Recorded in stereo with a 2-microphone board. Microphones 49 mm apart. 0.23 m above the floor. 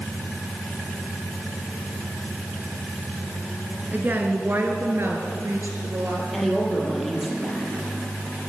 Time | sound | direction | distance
3.9 | a woman speaking | 40° right (ahead or behind) | 3 m
6.3 | a woman speaking | centre (ahead or behind) | 6.5 m